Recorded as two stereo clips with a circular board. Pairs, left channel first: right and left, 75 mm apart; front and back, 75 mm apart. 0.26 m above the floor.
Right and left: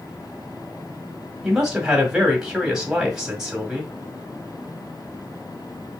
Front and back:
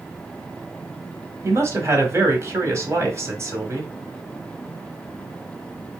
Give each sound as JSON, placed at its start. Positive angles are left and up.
{"t": 1.4, "sound": "a man speaking", "azimuth_deg": 170, "distance_m": 1.5}